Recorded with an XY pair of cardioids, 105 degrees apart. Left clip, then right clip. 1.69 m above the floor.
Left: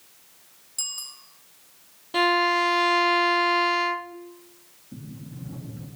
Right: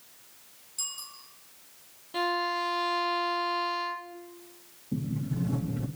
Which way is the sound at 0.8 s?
40° left.